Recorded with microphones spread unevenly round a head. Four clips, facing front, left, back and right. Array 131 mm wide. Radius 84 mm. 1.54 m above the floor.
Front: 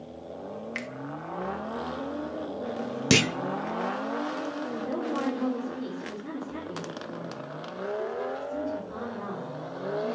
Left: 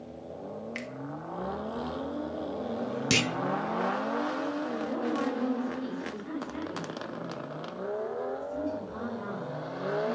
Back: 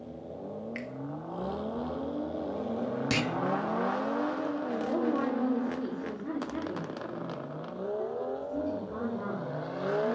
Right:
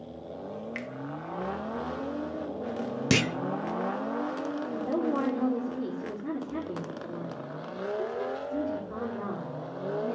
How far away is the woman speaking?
About 4 m.